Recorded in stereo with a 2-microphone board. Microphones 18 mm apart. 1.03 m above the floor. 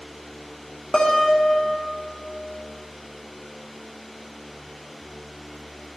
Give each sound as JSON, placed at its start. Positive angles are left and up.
{"t": 0.9, "sound": "a guitar", "side_deg": 60, "distance_m": 0.7}